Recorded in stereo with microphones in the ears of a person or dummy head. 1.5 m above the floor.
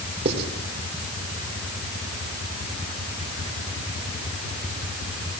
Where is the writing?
40° right (ahead or behind), 4 m.